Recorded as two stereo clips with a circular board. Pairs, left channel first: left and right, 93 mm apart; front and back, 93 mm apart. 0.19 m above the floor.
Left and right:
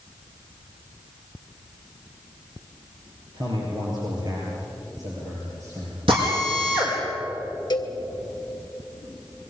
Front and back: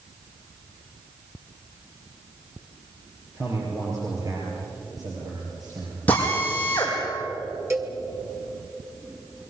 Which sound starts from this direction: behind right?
A man speaking, at 3.3 s.